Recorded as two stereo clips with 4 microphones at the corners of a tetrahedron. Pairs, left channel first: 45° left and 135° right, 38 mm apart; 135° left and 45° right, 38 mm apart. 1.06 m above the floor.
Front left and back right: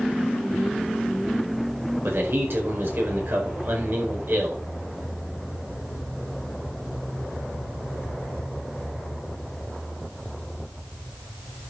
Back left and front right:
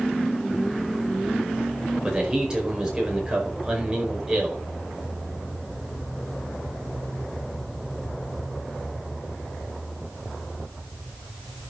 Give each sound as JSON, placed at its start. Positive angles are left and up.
{"t": 2.0, "sound": "a man speaking", "azimuth_deg": -115, "distance_m": 4.5}